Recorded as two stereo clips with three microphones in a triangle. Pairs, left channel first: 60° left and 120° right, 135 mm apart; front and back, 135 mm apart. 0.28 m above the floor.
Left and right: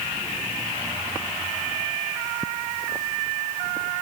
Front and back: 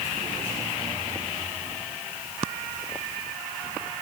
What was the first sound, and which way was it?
Only background noise.